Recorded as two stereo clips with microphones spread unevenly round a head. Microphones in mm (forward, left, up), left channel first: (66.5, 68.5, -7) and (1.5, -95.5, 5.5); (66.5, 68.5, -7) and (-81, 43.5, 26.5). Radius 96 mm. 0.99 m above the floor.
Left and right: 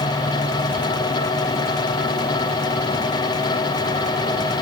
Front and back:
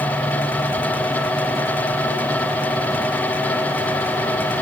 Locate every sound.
Only background noise.